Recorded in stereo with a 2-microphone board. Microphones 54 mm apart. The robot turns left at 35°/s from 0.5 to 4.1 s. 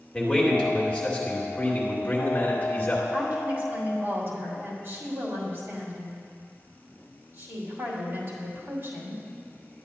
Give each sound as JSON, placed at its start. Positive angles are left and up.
{"t": 0.1, "sound": "a man speaking", "azimuth_deg": 150, "distance_m": 1.5}
{"t": 3.1, "sound": "a woman speaking", "azimuth_deg": -30, "distance_m": 2.5}